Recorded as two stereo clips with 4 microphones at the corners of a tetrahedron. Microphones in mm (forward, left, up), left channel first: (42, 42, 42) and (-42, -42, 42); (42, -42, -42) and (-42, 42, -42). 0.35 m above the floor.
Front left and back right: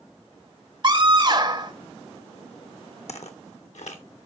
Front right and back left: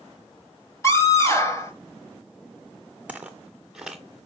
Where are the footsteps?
55° left, 1.0 m; by 4.3 s 50° left, 1.7 m.